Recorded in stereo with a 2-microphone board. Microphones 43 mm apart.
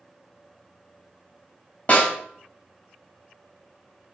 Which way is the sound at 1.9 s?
35° left (ahead or behind).